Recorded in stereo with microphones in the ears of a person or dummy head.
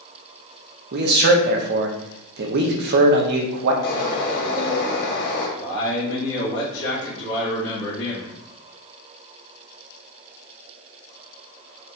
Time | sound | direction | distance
0.9 | a man speaking | 55° right (ahead or behind) | 0.7 m
3.8 | a bird | 55° left (ahead or behind) | 1.6 m
5.6 | a man speaking | 75° left (ahead or behind) | 1.5 m